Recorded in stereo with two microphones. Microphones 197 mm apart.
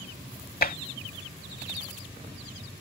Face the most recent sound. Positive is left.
turn(degrees=50)  # may be behind; listen again after turning